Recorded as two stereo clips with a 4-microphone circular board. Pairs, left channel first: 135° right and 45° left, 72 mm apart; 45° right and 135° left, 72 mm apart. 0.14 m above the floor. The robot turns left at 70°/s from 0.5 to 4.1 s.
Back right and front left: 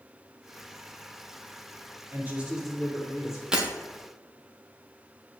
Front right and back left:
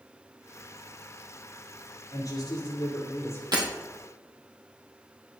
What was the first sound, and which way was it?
A man speaking, 5° right.